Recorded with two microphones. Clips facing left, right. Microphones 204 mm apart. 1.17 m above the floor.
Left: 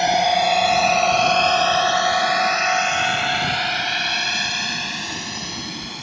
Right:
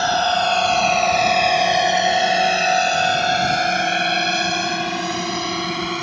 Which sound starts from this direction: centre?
A drone, at 0.0 s.